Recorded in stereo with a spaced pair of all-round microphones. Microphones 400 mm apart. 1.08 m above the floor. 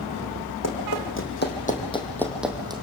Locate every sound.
0.6 s running footsteps: 40° left (ahead or behind), 4 m; by 2.8 s 15° right (ahead or behind), 3 m